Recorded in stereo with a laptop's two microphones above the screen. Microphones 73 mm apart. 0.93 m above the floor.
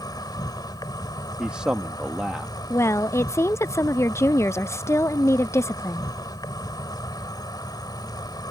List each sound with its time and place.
0.0 s an insect: 70° left (ahead or behind)
1.4 s a man speaking: 15° right (ahead or behind)
2.7 s a woman speaking: 40° left (ahead or behind)